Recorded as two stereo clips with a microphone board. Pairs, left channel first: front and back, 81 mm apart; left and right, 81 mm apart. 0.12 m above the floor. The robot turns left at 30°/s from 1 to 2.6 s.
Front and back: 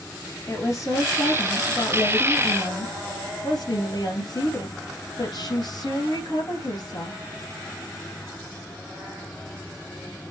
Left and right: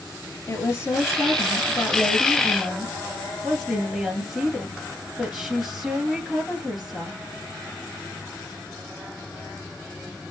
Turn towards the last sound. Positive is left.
turn(degrees=-5)